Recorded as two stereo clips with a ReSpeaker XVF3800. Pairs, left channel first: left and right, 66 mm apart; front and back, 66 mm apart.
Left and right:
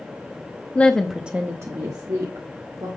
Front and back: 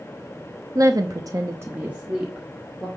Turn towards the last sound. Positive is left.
turn(degrees=-90)